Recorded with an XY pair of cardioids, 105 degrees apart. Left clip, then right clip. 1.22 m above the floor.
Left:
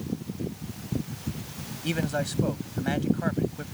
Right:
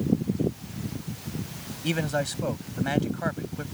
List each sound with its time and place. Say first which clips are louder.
1.8 s a man speaking: right 2 dB; 10° right